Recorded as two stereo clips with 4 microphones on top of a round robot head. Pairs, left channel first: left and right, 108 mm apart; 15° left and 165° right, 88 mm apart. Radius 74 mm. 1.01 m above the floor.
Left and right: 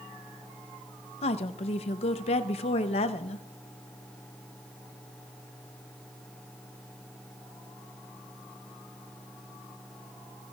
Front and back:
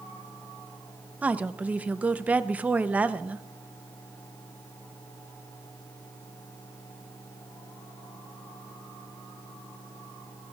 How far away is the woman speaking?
About 0.7 m.